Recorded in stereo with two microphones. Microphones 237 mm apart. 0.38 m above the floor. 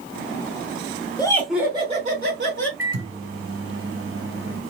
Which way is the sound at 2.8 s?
65° right (ahead or behind).